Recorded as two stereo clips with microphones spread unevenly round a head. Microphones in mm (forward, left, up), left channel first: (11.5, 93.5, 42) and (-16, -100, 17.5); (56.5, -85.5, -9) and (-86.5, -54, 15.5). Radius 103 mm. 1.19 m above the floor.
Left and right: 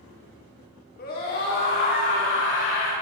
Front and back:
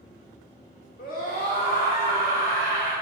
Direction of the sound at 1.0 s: 35° left.